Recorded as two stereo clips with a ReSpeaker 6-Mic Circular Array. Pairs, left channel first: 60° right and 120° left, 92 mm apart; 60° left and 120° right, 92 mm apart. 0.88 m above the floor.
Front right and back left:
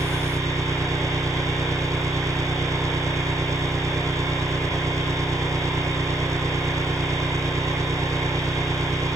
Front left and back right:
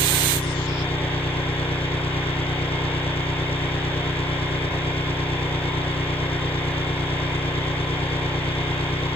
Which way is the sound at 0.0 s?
65° left.